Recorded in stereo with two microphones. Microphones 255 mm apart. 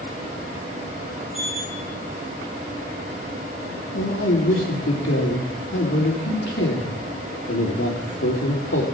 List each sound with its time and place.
1.3 s a sliding door: 5° right (ahead or behind), 8 m
3.9 s a man speaking: 55° left (ahead or behind), 3 m